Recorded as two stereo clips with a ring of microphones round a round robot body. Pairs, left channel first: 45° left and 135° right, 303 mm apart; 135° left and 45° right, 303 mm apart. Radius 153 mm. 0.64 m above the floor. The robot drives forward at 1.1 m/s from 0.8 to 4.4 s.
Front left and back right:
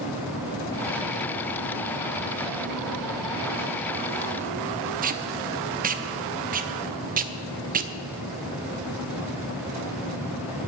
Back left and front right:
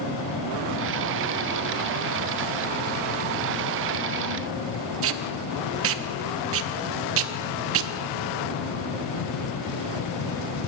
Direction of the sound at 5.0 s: 80° right.